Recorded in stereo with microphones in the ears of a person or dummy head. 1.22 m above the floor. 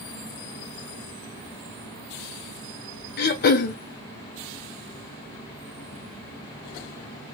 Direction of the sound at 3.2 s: 55° left (ahead or behind).